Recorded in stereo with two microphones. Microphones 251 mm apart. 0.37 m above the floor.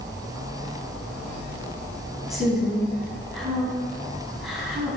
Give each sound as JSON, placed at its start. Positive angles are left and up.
{"t": 2.3, "sound": "a woman speaking", "side_deg": 0, "distance_m": 2.0}